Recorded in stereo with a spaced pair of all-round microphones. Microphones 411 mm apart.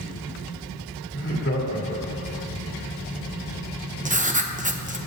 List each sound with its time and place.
1.1 s laughter: 30° left (ahead or behind), 2 m
4.0 s writing: 20° right (ahead or behind), 0.8 m